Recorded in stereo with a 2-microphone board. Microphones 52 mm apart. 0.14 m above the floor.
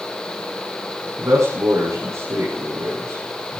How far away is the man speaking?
About 6 m.